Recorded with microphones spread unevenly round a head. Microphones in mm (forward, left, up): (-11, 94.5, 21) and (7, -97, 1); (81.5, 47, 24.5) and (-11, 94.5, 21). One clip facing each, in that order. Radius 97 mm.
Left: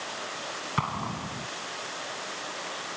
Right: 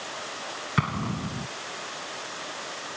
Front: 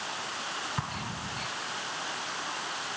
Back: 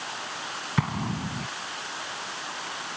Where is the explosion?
150° right.